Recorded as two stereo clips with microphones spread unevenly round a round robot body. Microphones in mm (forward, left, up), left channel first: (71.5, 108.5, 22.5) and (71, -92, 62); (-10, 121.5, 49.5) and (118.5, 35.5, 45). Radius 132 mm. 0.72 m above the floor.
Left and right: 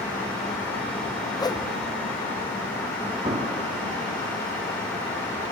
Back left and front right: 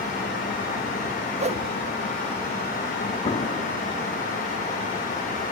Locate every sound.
1.4 s a whoosh: 20° left, 0.7 m
3.2 s an explosion: 160° right, 1.5 m